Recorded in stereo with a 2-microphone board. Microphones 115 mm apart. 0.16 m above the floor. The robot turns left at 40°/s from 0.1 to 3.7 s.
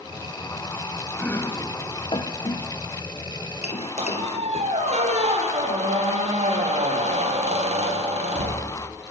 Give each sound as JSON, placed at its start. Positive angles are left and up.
{"t": 1.2, "sound": "chopping", "side_deg": 10, "distance_m": 2.5}
{"t": 4.0, "sound": "a squeak", "side_deg": -75, "distance_m": 4.0}